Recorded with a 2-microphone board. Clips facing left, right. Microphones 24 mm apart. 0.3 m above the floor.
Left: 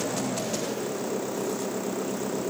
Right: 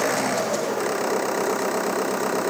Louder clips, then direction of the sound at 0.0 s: Right 7 dB; 70° right (ahead or behind).